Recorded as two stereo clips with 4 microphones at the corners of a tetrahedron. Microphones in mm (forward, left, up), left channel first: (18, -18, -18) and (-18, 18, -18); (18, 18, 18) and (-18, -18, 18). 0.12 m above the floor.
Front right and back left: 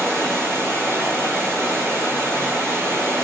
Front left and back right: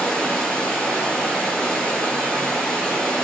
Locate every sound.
0.0 s running water: 125° left, 1.0 m